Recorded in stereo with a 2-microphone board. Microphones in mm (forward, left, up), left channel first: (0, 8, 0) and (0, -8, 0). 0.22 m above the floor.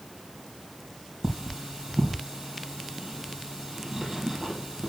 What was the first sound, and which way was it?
Cutlery clinking, 35° right (ahead or behind).